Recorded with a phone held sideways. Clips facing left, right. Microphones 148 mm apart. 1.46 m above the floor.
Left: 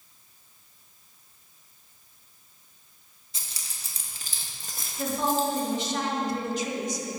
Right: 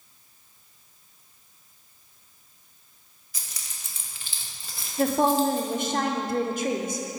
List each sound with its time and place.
3.3 s keys jangling: 25° left (ahead or behind), 0.9 m; by 5.9 s 40° left (ahead or behind), 1.3 m
5.0 s a woman speaking: 55° right (ahead or behind), 0.8 m